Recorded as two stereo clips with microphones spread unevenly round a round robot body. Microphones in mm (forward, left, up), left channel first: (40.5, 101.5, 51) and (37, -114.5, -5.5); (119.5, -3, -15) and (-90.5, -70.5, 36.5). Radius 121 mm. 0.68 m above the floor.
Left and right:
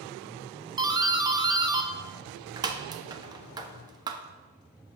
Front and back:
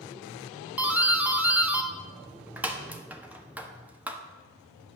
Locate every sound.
0.8 s a doorbell: 65° right, 1.1 m